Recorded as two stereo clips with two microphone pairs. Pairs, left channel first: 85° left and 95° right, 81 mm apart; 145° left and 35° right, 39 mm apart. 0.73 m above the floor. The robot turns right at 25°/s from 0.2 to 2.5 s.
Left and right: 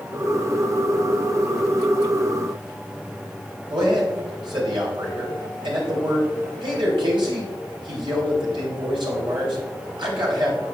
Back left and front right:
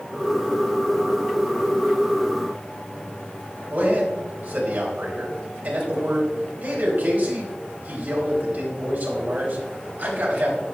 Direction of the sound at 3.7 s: 85° right.